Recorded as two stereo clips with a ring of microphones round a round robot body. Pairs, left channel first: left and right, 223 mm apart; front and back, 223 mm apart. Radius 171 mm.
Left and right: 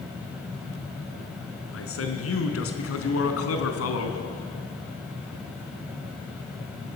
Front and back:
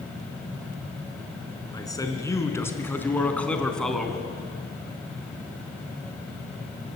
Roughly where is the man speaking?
Left.